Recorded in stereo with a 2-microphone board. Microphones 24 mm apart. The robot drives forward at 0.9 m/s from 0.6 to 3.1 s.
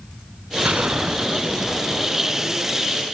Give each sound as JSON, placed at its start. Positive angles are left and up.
{"t": 0.6, "sound": "a gunshot", "side_deg": -75, "distance_m": 0.9}